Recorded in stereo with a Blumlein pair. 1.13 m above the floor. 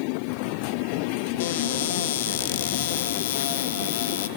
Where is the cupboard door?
55° left, 0.6 m.